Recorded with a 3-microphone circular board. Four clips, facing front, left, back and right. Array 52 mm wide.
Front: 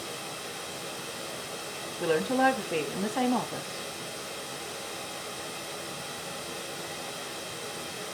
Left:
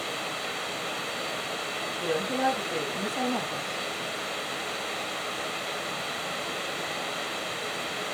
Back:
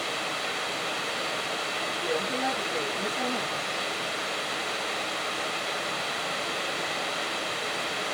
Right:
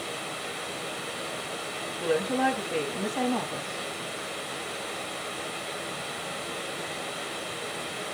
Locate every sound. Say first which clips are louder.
0.0 s running water: left 2 dB, back 8 dB; 160° left, 0.7 m
2.0 s a woman speaking: right 2 dB, front 6 dB; 10° right, 2.5 m